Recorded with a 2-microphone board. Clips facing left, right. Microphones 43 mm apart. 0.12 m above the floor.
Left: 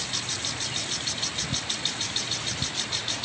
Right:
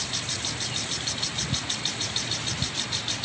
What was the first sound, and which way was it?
Only background noise.